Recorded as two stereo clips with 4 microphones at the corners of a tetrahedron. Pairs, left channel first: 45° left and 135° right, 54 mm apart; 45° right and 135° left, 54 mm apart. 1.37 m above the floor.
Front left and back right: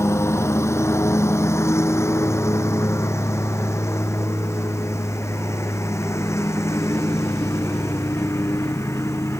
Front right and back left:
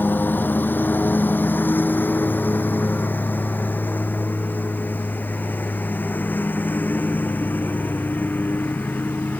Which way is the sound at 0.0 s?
10° left.